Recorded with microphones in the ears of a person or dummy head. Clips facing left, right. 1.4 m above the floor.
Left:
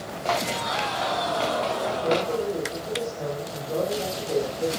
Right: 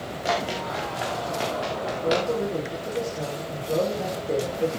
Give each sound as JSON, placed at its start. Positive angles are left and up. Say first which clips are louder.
{"t": 0.2, "sound": "running footsteps", "louder": "even", "side_deg": -10, "distance_m": 5.0}
{"t": 2.0, "sound": "a man speaking", "louder": "right 1 dB", "side_deg": -25, "distance_m": 5.5}